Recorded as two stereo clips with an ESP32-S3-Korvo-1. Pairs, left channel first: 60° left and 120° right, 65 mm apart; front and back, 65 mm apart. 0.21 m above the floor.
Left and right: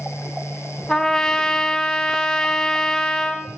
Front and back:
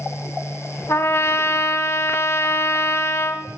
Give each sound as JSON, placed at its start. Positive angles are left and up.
{"t": 0.9, "sound": "a trumpet", "azimuth_deg": -15, "distance_m": 0.5}